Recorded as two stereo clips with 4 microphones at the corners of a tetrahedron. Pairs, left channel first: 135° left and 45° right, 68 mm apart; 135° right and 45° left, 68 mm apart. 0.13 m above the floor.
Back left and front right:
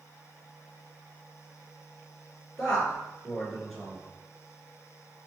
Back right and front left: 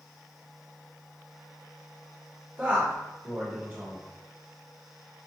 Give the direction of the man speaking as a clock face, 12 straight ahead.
10 o'clock.